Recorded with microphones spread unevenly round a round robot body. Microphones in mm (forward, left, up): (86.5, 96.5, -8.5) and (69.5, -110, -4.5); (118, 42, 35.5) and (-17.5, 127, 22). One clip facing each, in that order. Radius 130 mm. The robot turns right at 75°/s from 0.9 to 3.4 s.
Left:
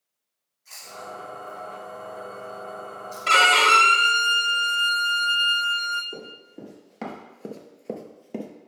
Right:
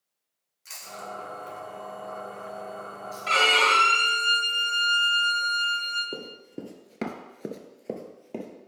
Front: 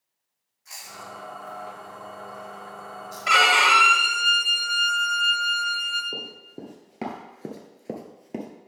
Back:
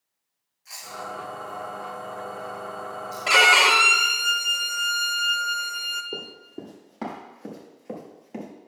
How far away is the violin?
About 0.7 m.